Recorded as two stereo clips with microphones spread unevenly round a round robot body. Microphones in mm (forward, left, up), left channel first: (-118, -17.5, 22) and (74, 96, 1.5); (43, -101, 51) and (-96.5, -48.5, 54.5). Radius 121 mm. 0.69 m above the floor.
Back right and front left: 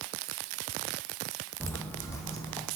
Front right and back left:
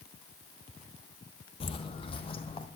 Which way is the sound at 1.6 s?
70° right.